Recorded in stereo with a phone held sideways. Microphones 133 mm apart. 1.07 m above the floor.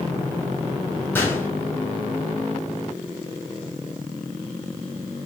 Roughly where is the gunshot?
Centre.